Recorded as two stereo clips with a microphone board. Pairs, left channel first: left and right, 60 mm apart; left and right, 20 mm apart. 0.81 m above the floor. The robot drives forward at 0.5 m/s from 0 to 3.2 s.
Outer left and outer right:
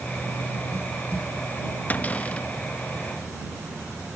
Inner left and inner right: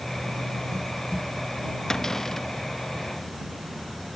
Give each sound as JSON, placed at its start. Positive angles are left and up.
{"t": 1.9, "sound": "a cupboard door", "side_deg": 30}